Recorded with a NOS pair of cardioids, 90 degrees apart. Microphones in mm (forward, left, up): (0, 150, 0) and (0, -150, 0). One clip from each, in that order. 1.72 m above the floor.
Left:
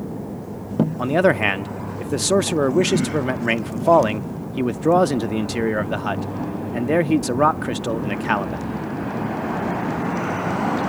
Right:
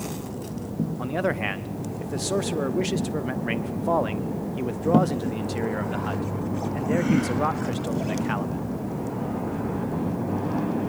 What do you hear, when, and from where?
1.0 s a man speaking: 40° left, 0.5 m